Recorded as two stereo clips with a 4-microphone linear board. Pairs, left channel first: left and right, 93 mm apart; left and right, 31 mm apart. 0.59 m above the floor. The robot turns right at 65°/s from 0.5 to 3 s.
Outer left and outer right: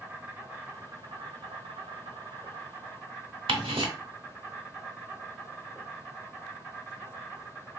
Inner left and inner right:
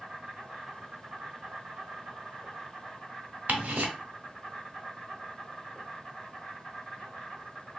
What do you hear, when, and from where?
0.0 s an insect: 165° right, 1.2 m; by 7.8 s 5° right, 1.2 m
3.5 s ticking: 70° right (ahead or behind), 0.7 m